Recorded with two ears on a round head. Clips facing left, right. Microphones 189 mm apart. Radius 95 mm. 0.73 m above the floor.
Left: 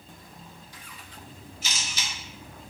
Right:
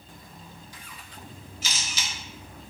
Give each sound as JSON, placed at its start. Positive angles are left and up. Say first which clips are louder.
{"t": 1.6, "sound": "a camera shutter", "louder": "right 1 dB", "side_deg": -65, "distance_m": 0.6}